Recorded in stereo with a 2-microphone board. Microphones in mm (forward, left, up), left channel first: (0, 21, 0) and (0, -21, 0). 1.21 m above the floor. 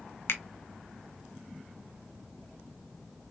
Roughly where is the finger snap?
Left.